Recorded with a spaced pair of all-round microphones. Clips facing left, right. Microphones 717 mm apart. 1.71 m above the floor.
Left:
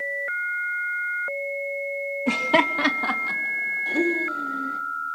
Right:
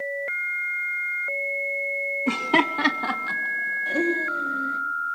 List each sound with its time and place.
2.3 s laughter: 20° left (ahead or behind), 0.7 m; by 4.8 s 10° right (ahead or behind), 3 m